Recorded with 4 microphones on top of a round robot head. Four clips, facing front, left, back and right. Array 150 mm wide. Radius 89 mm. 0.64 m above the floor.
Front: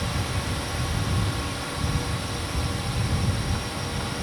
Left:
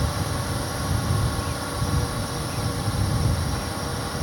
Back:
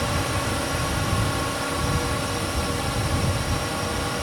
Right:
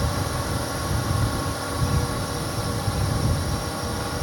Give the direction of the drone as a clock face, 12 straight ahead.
6 o'clock.